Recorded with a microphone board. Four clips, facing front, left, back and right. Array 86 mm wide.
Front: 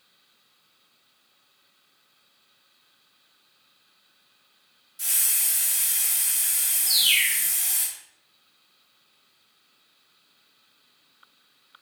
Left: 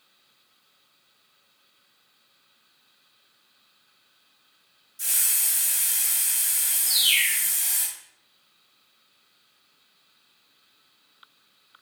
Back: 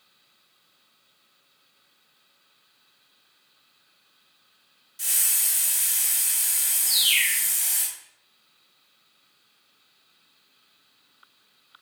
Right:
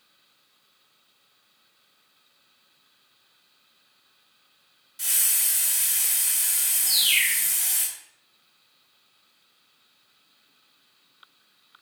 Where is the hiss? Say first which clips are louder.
Right 1 dB, even; 100° right, 1.2 m.